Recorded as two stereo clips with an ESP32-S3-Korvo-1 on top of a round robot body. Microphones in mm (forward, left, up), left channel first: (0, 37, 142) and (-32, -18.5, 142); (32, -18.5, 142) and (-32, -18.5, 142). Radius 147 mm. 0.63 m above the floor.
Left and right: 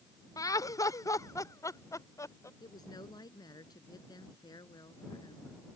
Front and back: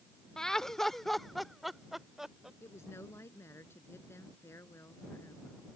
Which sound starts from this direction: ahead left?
A woman speaking, at 2.6 s.